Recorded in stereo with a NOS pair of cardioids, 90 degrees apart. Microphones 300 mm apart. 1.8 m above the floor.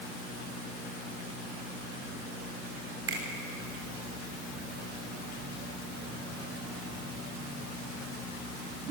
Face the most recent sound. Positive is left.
turn(degrees=-45)